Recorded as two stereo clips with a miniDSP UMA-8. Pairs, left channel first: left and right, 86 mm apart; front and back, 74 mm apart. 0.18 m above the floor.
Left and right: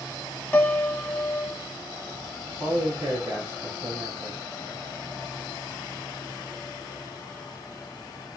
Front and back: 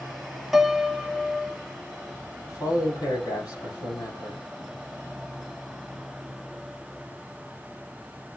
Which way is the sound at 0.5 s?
100° left.